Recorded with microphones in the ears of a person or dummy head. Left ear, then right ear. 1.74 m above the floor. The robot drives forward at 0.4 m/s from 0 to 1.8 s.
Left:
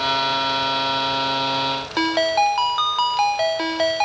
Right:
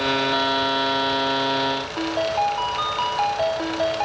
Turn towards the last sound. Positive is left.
turn(degrees=50)  # may be behind; listen again after turning